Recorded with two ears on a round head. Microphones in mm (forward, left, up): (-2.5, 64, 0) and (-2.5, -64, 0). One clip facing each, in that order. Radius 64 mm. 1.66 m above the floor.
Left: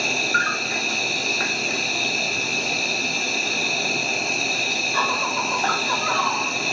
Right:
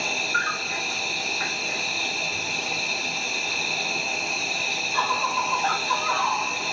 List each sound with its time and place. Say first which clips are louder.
0.0 s an insect: left 4 dB; 60° left (ahead or behind), 0.8 m